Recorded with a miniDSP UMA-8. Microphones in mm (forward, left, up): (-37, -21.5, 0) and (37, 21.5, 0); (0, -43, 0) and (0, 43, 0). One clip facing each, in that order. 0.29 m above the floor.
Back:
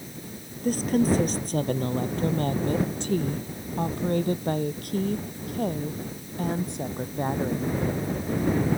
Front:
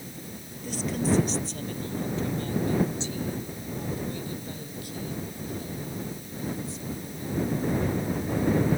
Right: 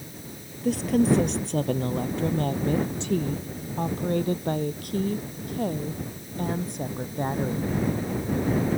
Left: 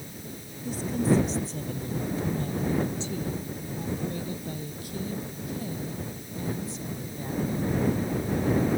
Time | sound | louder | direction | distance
0.6 | a woman speaking | back 5 dB, right 4 dB | 105° right | ?